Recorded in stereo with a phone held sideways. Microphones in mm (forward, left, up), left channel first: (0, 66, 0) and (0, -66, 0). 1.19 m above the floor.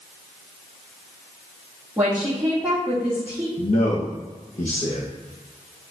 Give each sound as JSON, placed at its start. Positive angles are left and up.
{"t": 2.0, "sound": "a woman speaking", "side_deg": -10, "distance_m": 2.5}
{"t": 3.6, "sound": "a man speaking", "side_deg": 70, "distance_m": 0.9}